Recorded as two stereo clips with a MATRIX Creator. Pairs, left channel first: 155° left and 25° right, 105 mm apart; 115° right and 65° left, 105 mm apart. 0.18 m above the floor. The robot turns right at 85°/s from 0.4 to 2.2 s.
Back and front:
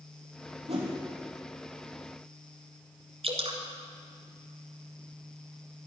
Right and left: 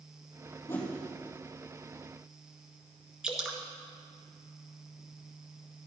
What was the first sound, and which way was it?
A whoosh, 50° right.